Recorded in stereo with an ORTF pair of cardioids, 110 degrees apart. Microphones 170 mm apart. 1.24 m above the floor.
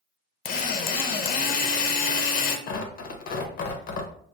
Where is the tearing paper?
65° left, 0.7 m.